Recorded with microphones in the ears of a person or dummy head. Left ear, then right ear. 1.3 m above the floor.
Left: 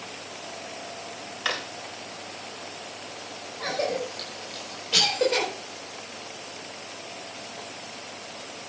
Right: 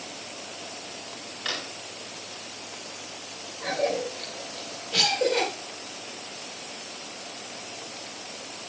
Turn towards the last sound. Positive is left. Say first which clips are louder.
# right 1 dB
turn(degrees=40)  # may be behind; listen again after turning